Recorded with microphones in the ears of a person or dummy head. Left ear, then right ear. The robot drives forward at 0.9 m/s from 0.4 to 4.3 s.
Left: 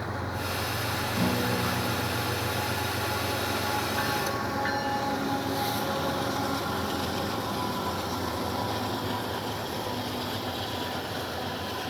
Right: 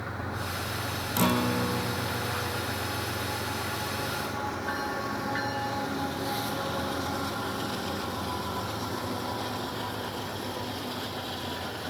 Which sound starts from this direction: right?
A guitar, at 1.2 s.